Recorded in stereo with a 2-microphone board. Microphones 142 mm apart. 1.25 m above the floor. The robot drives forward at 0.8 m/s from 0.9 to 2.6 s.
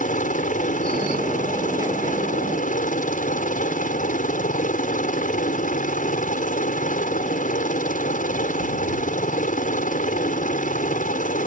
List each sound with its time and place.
0.0 s a helicopter: 65° left (ahead or behind); by 11.5 s 70° left (ahead or behind)